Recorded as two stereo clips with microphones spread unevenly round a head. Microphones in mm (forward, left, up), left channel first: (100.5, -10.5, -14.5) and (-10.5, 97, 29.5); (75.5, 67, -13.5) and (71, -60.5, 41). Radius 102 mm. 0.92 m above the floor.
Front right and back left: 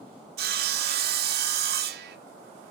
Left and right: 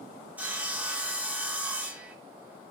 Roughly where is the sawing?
Behind.